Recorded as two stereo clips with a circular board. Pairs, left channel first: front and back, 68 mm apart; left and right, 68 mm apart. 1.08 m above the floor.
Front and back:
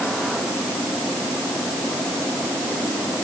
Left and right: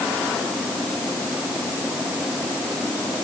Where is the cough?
I don't hear a cough.